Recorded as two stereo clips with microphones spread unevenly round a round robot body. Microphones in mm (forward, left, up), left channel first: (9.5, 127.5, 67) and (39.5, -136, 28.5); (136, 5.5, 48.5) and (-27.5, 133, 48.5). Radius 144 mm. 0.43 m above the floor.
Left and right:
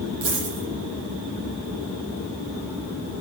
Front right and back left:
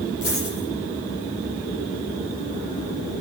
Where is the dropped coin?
100° right, 8.5 m.